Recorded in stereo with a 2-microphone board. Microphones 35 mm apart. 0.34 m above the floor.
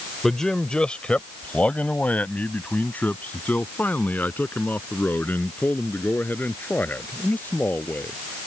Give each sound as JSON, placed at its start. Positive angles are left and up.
{"t": 0.2, "sound": "a man speaking", "side_deg": 15}